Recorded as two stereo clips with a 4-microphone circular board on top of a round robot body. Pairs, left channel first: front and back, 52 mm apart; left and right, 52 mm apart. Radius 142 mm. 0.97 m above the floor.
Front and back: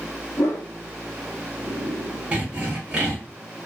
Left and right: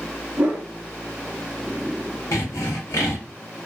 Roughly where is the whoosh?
Ahead.